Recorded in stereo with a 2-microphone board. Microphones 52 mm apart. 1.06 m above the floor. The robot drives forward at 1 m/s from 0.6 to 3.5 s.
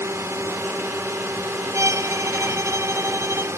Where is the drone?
65° right (ahead or behind).